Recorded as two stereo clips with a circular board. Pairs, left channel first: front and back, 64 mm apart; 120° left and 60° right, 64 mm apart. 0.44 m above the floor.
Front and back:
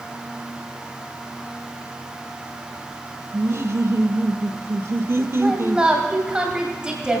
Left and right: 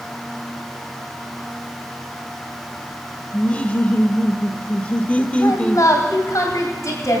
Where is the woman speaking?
105° left, 2.5 m.